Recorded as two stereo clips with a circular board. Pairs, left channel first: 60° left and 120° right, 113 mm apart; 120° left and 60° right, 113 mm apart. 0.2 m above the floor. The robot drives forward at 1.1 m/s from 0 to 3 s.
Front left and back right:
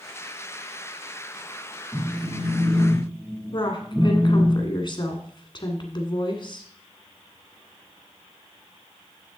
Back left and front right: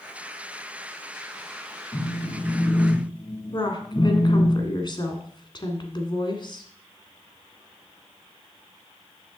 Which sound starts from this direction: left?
A woman speaking, at 3.5 s.